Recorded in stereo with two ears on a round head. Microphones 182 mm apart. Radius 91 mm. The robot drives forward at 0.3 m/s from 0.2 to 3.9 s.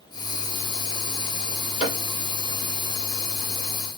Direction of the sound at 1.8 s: 40° left (ahead or behind).